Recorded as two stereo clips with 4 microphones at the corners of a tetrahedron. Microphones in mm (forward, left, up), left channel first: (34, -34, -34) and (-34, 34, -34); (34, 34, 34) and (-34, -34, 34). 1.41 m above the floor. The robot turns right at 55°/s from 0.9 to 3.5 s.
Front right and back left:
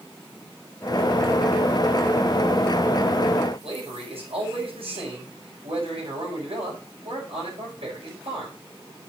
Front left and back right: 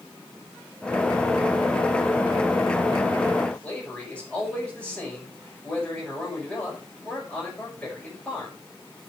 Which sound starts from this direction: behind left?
A man speaking, at 3.6 s.